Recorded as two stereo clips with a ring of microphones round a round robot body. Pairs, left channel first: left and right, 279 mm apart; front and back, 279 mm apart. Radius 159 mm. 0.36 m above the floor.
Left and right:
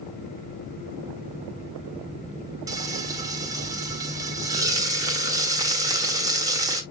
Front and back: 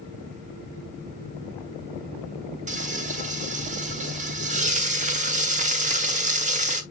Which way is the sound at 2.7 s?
155° right.